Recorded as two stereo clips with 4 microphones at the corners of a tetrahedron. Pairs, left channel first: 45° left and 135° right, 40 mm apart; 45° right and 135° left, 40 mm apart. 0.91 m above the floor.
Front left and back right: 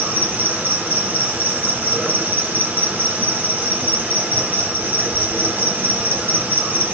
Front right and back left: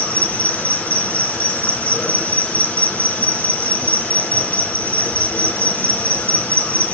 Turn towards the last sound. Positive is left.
turn(degrees=-90)